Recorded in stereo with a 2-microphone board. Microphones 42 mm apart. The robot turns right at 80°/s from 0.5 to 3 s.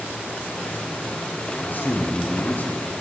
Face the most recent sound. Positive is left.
turn(degrees=160)